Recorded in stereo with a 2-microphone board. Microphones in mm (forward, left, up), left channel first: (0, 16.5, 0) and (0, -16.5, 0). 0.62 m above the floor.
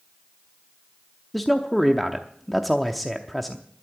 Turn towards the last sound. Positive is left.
turn(degrees=5)  # may be behind; listen again after turning